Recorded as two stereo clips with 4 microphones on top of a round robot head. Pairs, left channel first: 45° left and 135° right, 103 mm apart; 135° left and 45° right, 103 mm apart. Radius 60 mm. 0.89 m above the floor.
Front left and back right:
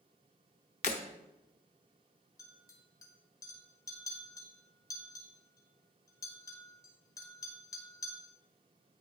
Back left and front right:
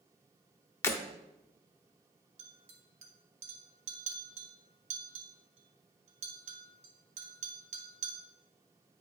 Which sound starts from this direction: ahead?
A clink, at 2.4 s.